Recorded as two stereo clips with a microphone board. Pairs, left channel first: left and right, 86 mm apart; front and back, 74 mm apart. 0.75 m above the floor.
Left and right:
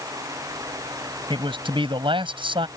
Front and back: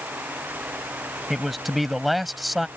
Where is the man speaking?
90° right.